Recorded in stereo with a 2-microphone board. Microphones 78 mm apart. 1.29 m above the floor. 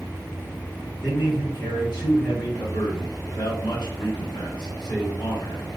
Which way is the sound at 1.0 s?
70° left (ahead or behind).